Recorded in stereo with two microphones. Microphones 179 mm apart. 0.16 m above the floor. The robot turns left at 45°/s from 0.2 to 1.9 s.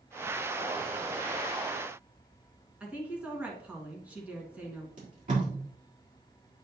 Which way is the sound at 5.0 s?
50° right (ahead or behind).